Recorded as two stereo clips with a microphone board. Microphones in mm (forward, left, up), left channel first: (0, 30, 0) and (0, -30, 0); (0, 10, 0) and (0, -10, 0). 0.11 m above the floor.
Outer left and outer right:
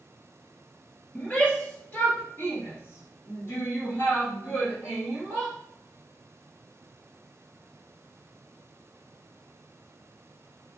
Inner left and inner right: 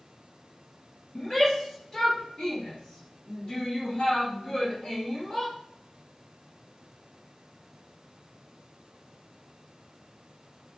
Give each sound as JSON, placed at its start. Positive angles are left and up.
{"t": 1.1, "sound": "a shout", "side_deg": 20, "distance_m": 1.9}